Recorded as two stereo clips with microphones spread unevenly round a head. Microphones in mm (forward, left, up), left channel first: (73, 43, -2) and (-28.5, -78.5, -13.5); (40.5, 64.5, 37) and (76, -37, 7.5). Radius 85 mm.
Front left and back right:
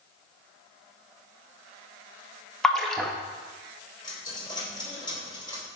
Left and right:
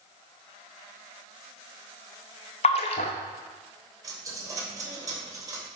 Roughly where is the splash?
Behind left.